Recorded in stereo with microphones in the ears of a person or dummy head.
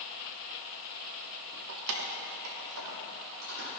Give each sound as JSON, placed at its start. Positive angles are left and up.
{"t": 1.7, "sound": "keys jangling", "side_deg": -65, "distance_m": 1.0}